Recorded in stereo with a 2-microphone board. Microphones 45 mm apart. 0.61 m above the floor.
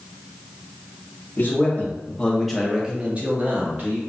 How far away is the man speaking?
About 0.8 m.